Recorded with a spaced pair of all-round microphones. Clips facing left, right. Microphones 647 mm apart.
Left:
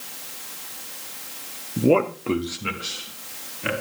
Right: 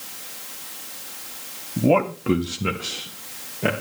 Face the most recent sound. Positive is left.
turn(degrees=-80)